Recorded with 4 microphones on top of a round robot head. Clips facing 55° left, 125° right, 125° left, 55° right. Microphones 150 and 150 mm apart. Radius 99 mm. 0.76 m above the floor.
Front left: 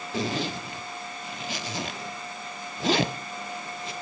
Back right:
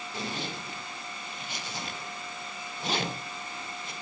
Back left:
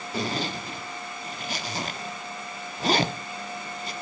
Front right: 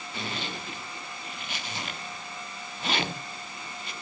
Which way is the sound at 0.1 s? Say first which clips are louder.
Front left 8 dB, back left 7 dB; 70° left.